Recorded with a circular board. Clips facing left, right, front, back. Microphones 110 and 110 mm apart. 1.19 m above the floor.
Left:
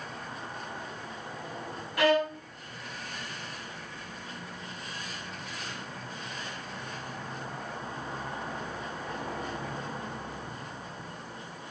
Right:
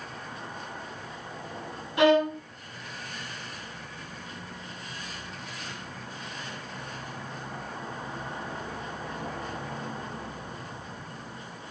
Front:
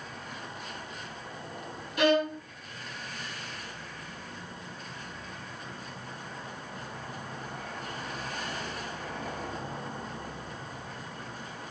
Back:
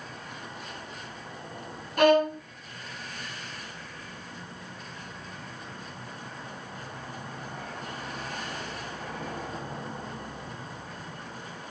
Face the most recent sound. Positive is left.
turn(degrees=-155)